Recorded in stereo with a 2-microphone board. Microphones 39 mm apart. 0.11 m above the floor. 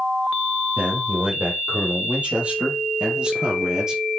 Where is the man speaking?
40° right (ahead or behind), 4 m; by 4.0 s 15° right (ahead or behind), 2.5 m.